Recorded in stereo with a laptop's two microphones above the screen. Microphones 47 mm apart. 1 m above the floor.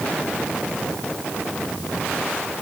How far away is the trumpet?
No trumpet in this recording.